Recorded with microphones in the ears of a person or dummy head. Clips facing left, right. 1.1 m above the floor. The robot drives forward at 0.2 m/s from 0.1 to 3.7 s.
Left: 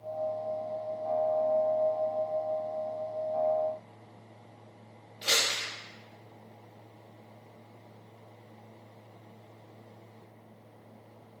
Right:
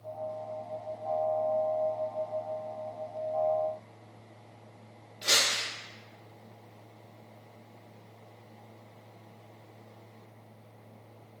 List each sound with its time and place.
5.2 s crumpling: 15° left (ahead or behind), 0.7 m